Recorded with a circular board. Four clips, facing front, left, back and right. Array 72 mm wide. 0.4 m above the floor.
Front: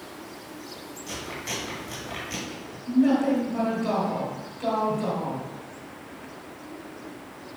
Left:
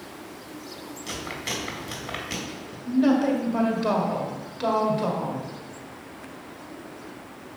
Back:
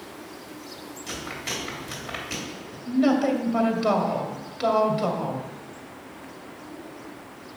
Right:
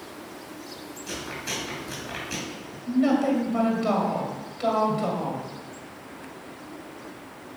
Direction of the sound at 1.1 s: 115° left.